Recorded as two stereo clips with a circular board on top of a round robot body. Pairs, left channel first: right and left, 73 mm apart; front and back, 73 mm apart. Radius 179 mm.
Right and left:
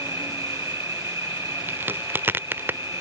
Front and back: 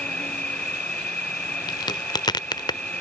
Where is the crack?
30° left.